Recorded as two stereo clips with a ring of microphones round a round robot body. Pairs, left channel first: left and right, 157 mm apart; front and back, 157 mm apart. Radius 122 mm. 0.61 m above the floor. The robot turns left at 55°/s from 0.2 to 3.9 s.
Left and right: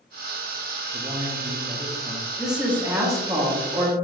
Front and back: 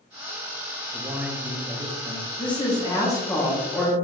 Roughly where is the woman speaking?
Ahead.